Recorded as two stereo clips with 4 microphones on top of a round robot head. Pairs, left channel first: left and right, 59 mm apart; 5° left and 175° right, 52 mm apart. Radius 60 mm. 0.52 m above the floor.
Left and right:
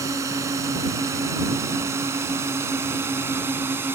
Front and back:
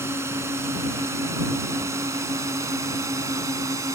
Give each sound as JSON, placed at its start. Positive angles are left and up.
{"t": 0.0, "sound": "a drone", "azimuth_deg": -130}